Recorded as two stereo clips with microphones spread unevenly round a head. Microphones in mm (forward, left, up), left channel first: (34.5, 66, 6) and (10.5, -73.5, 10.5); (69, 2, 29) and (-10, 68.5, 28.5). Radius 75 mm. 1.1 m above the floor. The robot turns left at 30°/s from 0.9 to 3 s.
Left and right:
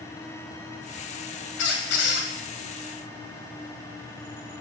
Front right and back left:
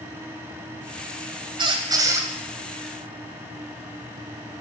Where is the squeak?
95° left, 2.5 m; by 2.3 s 75° left, 2.5 m.